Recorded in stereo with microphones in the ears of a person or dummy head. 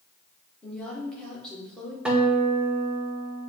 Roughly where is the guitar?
Centre.